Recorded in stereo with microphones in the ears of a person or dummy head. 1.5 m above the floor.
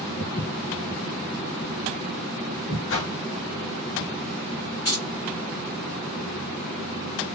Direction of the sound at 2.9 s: 65° left (ahead or behind).